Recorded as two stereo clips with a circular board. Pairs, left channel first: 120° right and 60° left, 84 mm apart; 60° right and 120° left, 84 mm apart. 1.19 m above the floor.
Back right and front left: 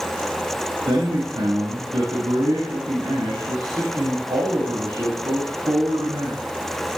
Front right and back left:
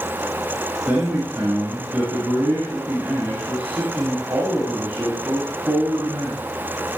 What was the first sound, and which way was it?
A man speaking, 50° left.